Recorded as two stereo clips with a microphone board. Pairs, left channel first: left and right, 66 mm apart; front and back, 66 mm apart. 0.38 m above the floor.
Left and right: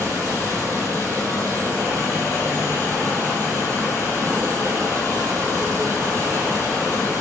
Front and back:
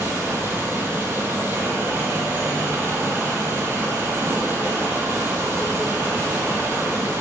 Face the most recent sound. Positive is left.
turn(degrees=-125)